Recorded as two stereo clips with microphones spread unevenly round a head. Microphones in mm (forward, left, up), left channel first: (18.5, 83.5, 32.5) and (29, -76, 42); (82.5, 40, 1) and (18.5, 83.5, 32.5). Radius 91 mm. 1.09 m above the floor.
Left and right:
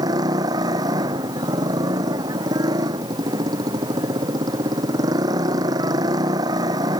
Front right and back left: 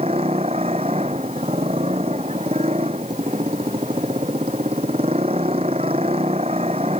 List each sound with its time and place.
0.0 s a motorcycle: 155° right